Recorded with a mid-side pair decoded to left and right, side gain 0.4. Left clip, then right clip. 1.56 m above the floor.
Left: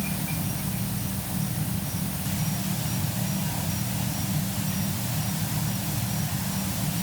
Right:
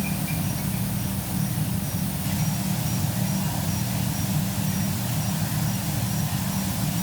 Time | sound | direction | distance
0.0 | an insect | 20° right | ?